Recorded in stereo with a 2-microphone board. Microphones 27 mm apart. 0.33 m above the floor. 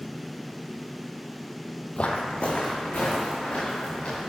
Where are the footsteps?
50° left (ahead or behind), 0.6 m.